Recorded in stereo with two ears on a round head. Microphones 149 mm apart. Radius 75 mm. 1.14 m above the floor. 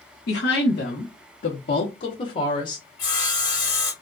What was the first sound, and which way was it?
A woman speaking, 65° left (ahead or behind).